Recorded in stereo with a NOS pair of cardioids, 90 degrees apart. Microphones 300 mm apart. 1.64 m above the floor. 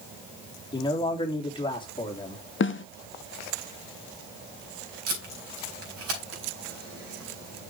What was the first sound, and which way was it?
A man speaking, 15° left.